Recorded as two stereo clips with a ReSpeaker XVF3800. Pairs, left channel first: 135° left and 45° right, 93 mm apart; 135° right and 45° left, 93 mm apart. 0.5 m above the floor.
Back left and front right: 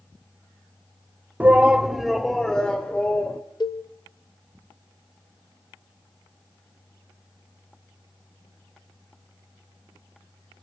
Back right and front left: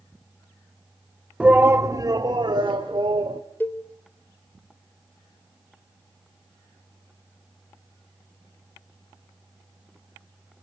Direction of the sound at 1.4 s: 10° right.